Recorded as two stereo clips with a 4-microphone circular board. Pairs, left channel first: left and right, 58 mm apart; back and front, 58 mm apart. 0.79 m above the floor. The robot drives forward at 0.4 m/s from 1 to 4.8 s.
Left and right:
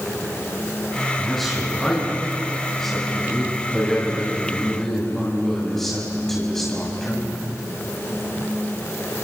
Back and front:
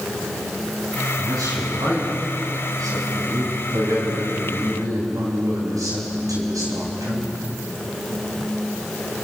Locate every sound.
1.2 s a man speaking: 5° left, 8 m